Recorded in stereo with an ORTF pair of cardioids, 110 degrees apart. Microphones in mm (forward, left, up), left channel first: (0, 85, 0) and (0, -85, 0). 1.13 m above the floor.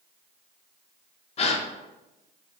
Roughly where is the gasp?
Ahead left.